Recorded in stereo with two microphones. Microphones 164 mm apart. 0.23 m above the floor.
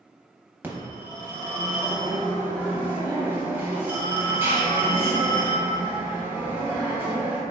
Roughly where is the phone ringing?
Centre.